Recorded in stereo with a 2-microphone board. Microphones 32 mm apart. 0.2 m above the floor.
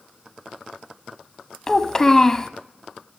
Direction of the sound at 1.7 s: 15° left (ahead or behind).